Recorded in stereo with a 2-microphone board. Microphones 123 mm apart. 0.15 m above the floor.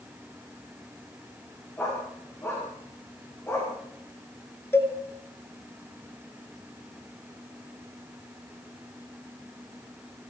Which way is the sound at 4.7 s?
20° left (ahead or behind).